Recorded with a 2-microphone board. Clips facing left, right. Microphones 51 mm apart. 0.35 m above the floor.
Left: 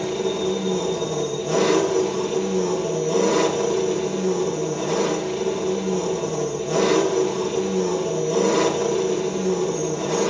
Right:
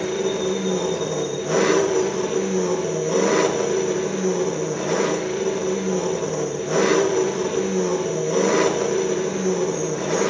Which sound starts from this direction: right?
An engine running, at 0.0 s.